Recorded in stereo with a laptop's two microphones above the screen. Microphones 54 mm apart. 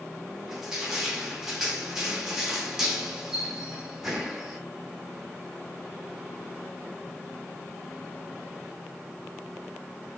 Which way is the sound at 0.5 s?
10° right (ahead or behind).